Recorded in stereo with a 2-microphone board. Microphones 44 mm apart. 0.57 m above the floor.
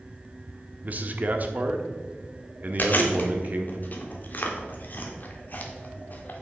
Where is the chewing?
50° left (ahead or behind), 1.4 m.